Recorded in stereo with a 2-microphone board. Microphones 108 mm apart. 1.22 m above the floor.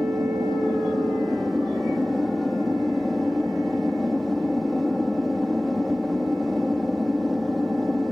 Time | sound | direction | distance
0.0 | an aircraft | centre (ahead or behind) | ?